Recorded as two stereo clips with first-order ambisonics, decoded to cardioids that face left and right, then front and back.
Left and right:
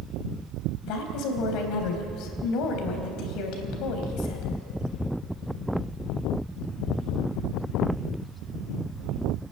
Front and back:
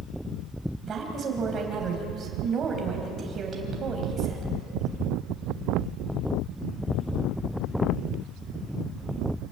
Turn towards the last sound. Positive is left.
turn(degrees=115)